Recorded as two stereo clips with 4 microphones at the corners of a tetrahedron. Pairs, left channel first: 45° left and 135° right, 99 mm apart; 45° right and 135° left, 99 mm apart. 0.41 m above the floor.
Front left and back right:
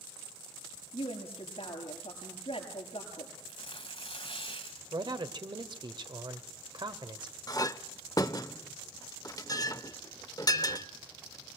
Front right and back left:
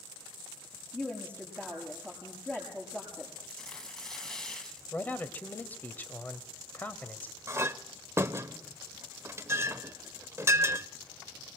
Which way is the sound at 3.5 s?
40° left.